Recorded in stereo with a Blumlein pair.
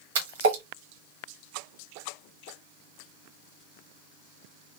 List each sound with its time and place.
0.1 s a splash: 60° right, 1.5 m